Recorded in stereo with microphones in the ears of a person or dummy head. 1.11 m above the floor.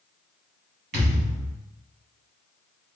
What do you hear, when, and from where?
0.9 s a thud: 65° right (ahead or behind), 3 m